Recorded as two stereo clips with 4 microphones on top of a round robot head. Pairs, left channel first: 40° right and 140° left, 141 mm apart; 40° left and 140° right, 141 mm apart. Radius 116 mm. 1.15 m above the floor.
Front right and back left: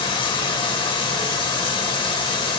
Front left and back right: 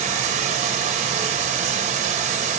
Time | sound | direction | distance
0.0 | running water | 100° right | 0.7 m